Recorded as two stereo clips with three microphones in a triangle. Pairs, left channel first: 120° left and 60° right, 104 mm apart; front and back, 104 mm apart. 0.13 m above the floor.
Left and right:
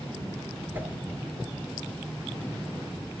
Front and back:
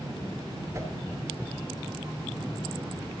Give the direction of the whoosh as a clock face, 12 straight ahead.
4 o'clock.